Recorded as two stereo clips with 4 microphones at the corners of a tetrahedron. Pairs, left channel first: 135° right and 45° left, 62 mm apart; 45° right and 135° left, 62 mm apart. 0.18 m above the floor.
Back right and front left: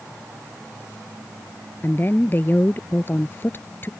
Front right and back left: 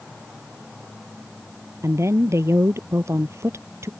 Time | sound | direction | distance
1.8 | a woman speaking | 170° left | ?